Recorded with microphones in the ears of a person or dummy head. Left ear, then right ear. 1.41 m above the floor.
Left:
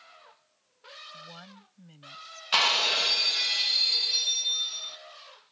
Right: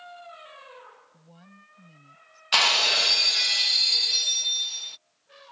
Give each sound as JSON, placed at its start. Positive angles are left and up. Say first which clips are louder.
{"t": 1.1, "sound": "a woman speaking", "louder": "left 8 dB", "side_deg": 50}
{"t": 2.5, "sound": "breaking glass", "louder": "right 3 dB", "side_deg": -10}